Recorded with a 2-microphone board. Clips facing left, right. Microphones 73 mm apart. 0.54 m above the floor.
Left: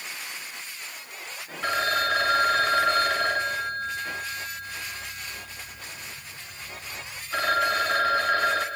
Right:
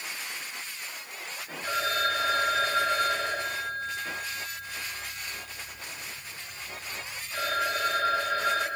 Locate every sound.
1.6 s a phone ringing: 85° left, 2.5 m